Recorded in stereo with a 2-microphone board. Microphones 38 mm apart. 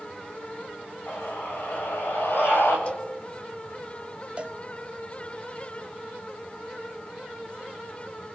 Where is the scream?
65° left (ahead or behind), 8 m; by 2.8 s 70° left (ahead or behind), 10 m.